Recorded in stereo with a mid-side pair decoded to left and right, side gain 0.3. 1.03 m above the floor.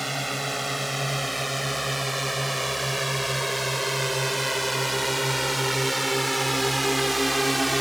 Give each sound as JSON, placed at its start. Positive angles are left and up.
{"t": 0.0, "sound": "a drone", "azimuth_deg": -5}